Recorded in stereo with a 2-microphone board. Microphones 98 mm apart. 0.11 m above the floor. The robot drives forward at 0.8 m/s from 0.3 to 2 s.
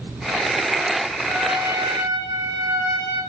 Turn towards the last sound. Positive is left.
turn(degrees=-35)  # may be behind; listen again after turning